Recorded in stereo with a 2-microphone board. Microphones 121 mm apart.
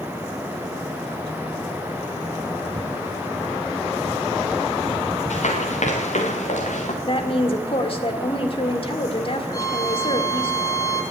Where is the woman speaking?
50° left (ahead or behind), 1.9 m.